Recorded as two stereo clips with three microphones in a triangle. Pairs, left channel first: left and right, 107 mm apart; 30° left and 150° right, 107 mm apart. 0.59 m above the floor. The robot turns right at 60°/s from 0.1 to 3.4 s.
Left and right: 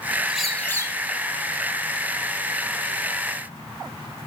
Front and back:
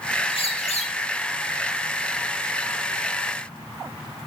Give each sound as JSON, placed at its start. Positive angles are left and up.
{"t": 0.3, "sound": "a bird", "azimuth_deg": -10, "distance_m": 3.5}